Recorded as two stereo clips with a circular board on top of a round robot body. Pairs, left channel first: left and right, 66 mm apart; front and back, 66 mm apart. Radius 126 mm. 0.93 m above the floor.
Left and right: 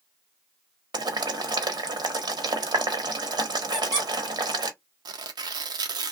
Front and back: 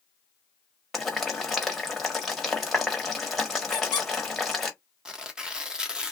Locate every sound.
0.9 s boiling: 90° right, 1.0 m
3.7 s a squeak: 5° left, 0.7 m
5.0 s tearing paper: 100° right, 0.5 m